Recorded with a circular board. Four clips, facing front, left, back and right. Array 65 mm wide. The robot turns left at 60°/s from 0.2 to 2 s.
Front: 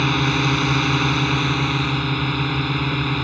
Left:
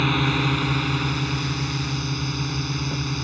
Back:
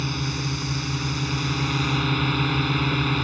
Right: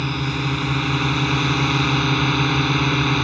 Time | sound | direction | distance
0.0 | a drone | 25° left | ?